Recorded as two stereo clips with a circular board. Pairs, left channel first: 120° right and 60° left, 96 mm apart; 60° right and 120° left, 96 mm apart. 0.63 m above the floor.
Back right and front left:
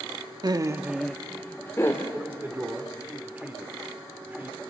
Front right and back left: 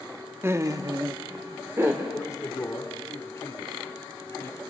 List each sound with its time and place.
0.4 s laughter: 65° left, 0.8 m; by 2.0 s 175° right, 1.7 m
2.1 s a man speaking: 5° right, 2.5 m